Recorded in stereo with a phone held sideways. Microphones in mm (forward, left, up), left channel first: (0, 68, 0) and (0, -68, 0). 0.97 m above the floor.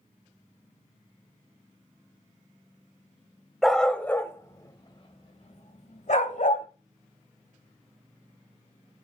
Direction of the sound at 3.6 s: Centre (ahead or behind).